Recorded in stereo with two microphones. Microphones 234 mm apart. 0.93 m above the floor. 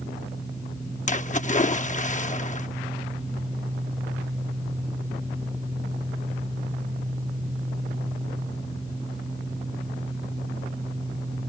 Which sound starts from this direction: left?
A splash, at 1.1 s.